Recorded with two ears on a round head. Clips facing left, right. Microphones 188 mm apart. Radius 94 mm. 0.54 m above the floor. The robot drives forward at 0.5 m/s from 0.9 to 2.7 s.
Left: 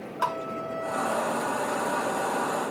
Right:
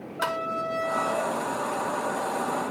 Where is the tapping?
25° right (ahead or behind).